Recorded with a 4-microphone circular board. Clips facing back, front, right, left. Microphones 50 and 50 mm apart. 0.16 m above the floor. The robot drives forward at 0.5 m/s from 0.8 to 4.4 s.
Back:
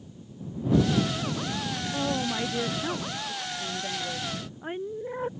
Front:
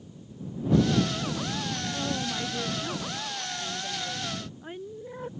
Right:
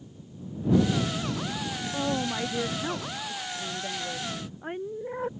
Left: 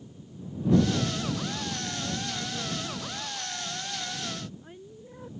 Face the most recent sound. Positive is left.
turn(degrees=-120)